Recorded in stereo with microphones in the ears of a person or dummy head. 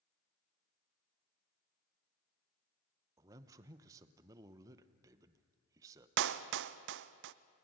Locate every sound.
3.2 s a man speaking: 20° right (ahead or behind), 1.0 m
6.2 s a clap: 70° right (ahead or behind), 0.7 m